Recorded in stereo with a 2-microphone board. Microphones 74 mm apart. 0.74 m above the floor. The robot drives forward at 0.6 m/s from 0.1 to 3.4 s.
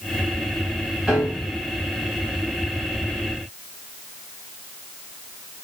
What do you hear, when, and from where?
1.1 s a piano: 5° right (ahead or behind), 6 m